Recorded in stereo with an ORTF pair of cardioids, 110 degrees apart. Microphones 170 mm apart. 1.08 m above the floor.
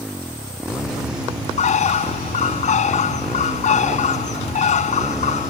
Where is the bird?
45° left.